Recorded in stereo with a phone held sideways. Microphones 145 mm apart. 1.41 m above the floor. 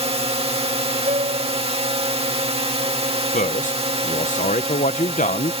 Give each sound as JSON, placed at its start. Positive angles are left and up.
{"t": 0.0, "sound": "a drone", "side_deg": -45}
{"t": 1.1, "sound": "a piano", "side_deg": -50}
{"t": 3.3, "sound": "a man speaking", "side_deg": 60}